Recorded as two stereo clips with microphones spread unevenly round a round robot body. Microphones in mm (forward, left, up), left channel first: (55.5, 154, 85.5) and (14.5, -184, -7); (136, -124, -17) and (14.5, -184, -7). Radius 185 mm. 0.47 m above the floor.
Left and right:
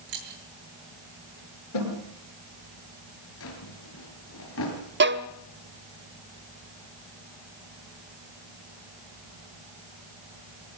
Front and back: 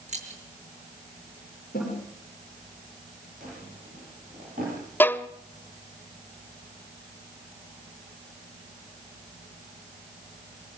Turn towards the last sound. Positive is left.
turn(degrees=-45)